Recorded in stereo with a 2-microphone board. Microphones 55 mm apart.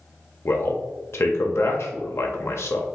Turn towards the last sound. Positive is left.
turn(degrees=55)  # may be behind; listen again after turning